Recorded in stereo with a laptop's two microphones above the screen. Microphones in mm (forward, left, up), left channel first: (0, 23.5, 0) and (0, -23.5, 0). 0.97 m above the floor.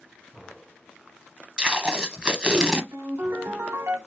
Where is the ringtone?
85° right, 1.9 m.